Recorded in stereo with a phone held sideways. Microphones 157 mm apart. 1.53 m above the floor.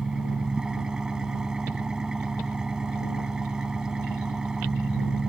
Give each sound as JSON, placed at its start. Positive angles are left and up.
{"t": 0.0, "sound": "an engine running", "side_deg": -5}